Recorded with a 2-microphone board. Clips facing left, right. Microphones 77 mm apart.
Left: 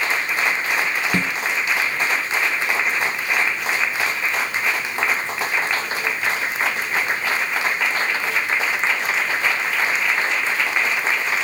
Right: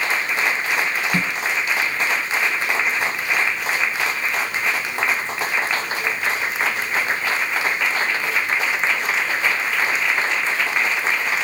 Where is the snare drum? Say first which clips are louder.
Left 1 dB; 30° left (ahead or behind), 0.8 m.